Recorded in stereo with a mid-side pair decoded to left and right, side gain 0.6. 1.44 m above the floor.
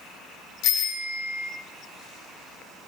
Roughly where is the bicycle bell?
Left.